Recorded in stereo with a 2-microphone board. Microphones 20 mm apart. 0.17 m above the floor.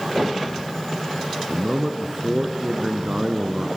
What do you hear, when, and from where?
1.5 s a man speaking: 30° right (ahead or behind), 1.5 m